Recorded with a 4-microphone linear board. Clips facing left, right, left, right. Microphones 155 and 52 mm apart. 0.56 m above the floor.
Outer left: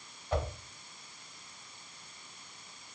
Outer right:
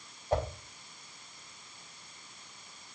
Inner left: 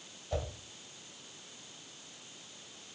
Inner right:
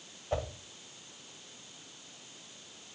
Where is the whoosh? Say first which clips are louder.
Outer right 3 dB, inner right 3 dB; 40° right (ahead or behind), 2.5 m.